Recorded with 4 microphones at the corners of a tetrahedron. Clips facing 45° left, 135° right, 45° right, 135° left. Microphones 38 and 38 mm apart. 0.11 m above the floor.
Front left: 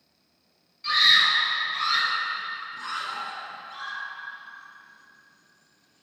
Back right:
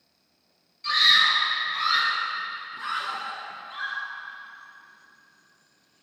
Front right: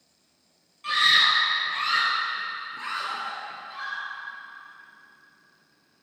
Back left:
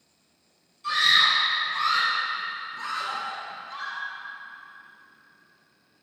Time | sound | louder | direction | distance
0.8 | a scream | even, even | 40° right | 1.8 m